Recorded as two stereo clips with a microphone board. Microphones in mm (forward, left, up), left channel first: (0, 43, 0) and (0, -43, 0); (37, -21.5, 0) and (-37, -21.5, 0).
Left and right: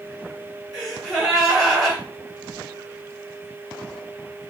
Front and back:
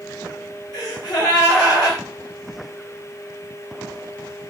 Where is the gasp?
Straight ahead, 2.5 m.